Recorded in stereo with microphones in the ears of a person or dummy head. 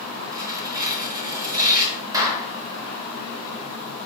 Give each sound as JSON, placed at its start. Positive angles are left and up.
{"t": 0.3, "sound": "tearing paper", "side_deg": -20, "distance_m": 6.0}
{"t": 2.1, "sound": "a clap", "side_deg": -15, "distance_m": 4.5}